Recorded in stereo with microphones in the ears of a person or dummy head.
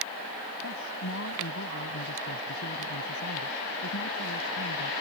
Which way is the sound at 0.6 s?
65° left (ahead or behind).